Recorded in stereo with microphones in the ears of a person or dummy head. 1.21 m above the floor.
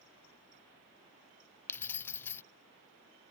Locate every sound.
1.7 s keys jangling: 15° left (ahead or behind)